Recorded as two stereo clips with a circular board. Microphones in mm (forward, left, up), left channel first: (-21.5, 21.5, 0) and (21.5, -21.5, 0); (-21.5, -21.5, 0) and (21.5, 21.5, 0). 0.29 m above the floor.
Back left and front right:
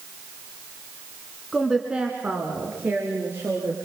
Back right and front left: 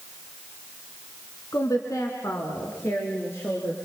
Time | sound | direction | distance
1.5 | a woman speaking | 135° right | 2.5 m